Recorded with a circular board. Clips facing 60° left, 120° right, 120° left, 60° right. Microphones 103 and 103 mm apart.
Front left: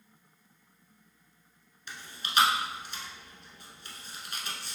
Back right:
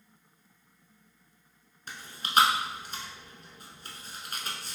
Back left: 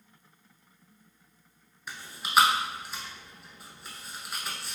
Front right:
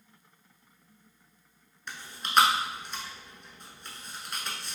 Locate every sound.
1.9 s chewing: 155° right, 0.8 m